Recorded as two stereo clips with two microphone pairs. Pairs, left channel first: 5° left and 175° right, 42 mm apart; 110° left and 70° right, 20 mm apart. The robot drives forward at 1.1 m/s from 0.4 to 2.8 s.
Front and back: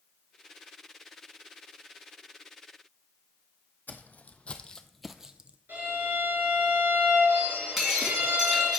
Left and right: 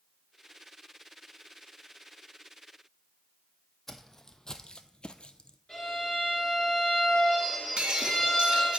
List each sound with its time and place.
3.9 s footsteps: 45° left, 0.8 m; by 5.6 s 135° left, 0.5 m
5.7 s a violin: 170° left, 4.5 m
7.8 s breaking glass: 95° right, 1.6 m